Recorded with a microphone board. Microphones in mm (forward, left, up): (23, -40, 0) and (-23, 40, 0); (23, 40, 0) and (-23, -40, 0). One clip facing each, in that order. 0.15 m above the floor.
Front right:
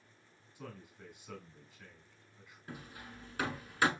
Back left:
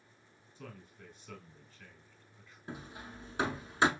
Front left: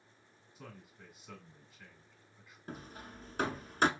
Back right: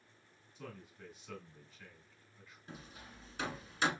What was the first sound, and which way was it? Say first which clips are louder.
A man speaking: front right 1 dB, back right 3 dB; 10° right.